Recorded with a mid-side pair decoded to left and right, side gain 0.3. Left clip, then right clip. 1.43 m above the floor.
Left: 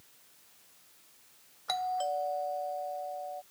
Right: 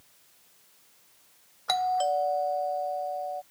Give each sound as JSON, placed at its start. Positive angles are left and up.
{"t": 1.7, "sound": "a doorbell", "azimuth_deg": -60}